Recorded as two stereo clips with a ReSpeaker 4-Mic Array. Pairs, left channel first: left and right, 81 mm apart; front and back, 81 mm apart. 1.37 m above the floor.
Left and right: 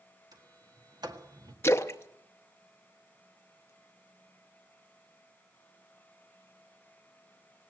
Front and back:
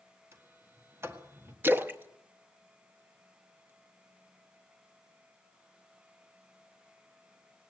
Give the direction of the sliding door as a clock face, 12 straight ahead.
4 o'clock.